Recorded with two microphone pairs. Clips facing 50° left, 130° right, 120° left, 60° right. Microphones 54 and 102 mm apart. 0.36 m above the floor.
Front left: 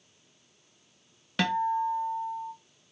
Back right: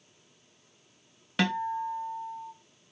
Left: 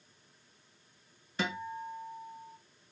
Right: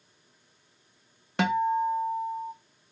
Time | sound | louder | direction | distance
1.4 | a guitar | front left 2 dB, right 12 dB | 40° right | 0.8 m